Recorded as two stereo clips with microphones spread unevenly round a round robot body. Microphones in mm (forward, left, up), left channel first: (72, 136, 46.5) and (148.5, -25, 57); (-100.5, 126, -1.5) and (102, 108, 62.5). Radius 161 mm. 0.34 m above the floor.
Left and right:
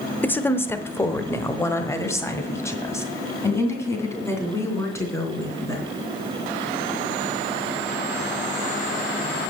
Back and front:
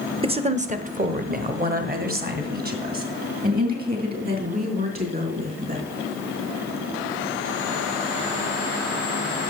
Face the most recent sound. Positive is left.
turn(degrees=40)